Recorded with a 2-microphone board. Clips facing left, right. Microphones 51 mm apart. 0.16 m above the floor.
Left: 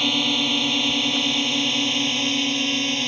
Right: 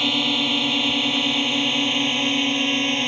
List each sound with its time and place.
0.0 s a drone: 5° right (ahead or behind); by 3.1 s 20° right (ahead or behind)